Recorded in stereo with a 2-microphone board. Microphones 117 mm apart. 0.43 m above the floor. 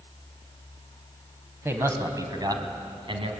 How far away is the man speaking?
About 2.5 m.